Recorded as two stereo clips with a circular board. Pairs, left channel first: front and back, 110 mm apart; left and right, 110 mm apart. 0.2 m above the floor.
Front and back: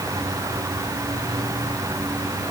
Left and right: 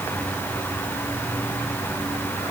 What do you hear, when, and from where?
Only background noise.